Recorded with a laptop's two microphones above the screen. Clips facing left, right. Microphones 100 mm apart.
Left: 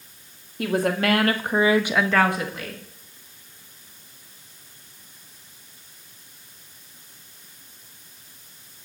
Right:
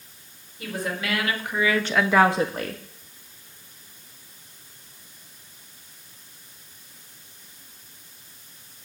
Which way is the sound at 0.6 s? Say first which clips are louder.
Left 8 dB; 65° left (ahead or behind).